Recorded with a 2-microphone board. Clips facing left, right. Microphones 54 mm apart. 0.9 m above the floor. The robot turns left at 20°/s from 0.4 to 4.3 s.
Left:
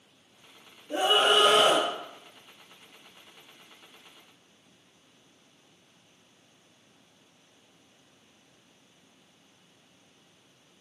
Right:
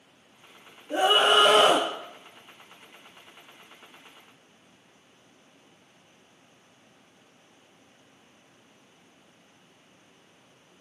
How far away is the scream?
About 1.1 m.